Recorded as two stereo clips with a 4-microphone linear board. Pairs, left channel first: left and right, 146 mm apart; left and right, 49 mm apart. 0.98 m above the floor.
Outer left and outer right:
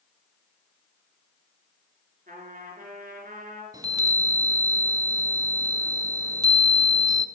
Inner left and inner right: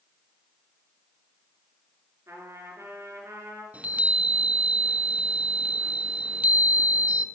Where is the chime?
25° right (ahead or behind), 0.6 m.